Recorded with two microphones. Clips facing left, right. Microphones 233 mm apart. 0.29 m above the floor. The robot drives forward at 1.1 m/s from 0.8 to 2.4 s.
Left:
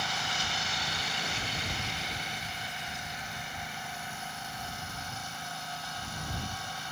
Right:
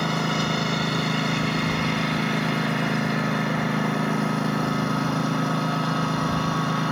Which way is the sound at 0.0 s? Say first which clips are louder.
Right 16 dB; 65° right (ahead or behind).